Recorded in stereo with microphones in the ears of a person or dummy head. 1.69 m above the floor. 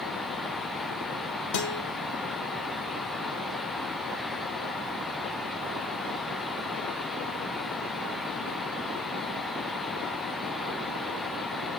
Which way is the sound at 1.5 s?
70° left (ahead or behind).